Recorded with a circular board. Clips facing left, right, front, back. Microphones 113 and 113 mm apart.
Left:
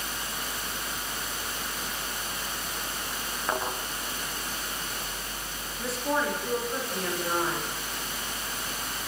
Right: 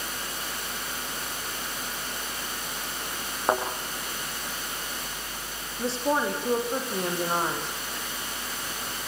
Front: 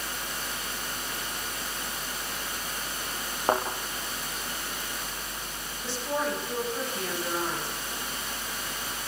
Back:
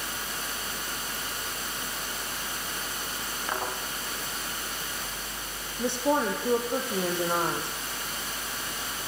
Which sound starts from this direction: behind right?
A woman speaking, at 5.8 s.